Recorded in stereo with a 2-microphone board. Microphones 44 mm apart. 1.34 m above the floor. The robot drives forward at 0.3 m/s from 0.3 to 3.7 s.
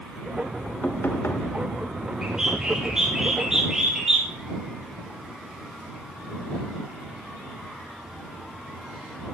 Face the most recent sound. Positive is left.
turn(degrees=-15)  # may be behind; listen again after turning